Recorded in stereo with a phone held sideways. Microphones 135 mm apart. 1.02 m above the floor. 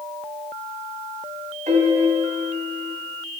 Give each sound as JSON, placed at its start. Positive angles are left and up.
{"t": 1.7, "sound": "a piano", "side_deg": -60, "distance_m": 1.7}